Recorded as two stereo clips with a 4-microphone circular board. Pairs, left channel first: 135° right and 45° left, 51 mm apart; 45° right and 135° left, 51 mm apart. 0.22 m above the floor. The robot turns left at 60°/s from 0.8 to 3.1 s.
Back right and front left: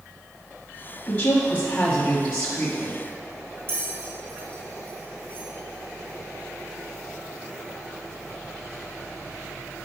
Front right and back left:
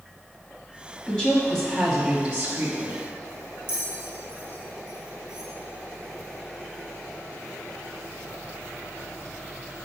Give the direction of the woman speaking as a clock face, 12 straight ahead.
3 o'clock.